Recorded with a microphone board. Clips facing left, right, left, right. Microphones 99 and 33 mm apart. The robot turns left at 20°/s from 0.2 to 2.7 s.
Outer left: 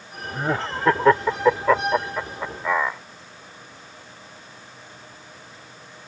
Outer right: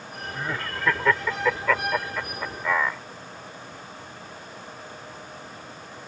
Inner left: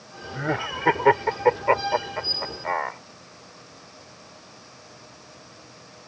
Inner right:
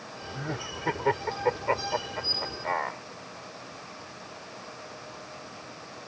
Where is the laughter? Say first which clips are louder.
Outer left 7 dB, inner left 9 dB; 45° left (ahead or behind); by 3.0 s 15° left (ahead or behind).